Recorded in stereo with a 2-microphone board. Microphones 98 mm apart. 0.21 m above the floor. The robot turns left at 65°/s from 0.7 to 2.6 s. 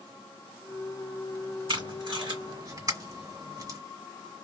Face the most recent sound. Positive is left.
turn(degrees=-35)  # may be behind; listen again after turning